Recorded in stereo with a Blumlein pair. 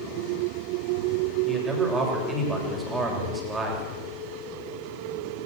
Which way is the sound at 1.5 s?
10° right.